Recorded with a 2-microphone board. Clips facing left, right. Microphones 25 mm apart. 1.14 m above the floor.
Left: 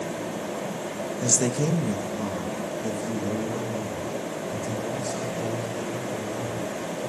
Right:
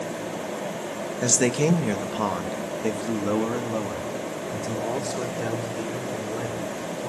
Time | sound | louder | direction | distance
1.2 | a man speaking | right 3 dB | 35° right (ahead or behind) | 1.7 m